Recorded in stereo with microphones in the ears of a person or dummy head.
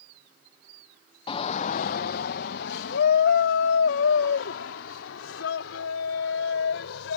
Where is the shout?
25° left (ahead or behind); by 7.2 s 85° left.